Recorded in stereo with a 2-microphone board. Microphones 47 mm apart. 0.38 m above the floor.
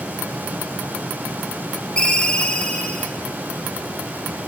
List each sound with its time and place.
2.0 s a ringtone: 20° left (ahead or behind), 2 m